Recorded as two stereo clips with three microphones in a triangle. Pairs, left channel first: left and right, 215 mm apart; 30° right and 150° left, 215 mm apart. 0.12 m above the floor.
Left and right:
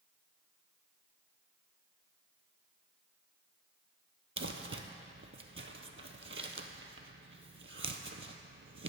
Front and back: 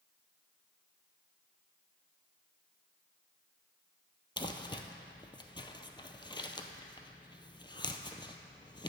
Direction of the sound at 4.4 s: 100° right.